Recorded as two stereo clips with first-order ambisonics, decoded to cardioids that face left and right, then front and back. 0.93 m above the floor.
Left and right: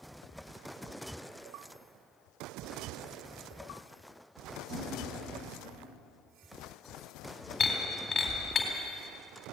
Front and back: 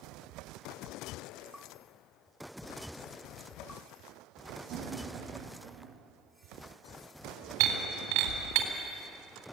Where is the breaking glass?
165° left, 3.5 m.